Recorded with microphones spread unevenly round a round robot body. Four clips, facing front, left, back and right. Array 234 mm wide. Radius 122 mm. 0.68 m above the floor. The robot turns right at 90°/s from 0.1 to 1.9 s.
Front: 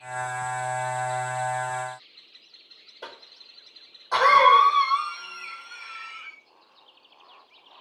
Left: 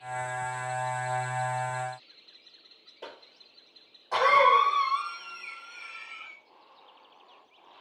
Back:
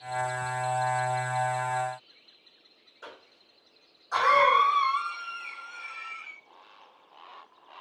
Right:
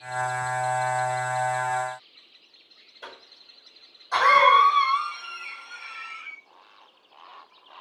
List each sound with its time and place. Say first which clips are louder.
3.0 s a cough: right 1 dB, front 4 dB; 30° left, 3.5 m